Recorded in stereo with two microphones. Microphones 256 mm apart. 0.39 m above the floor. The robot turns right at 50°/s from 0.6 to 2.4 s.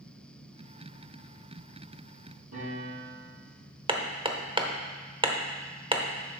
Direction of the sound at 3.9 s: 20° right (ahead or behind).